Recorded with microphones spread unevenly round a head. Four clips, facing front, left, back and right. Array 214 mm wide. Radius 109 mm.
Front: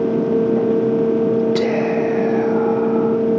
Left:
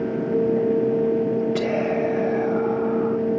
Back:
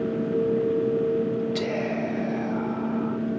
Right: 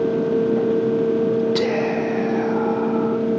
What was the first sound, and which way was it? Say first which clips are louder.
Whispering: right 2 dB, front 9 dB; 35° right.